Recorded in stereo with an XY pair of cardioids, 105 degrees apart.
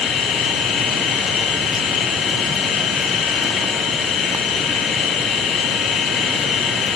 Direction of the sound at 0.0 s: 60° left.